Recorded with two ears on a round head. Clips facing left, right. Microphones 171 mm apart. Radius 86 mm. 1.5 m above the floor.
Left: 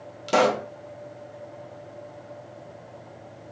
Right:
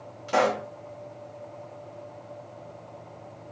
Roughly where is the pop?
Left.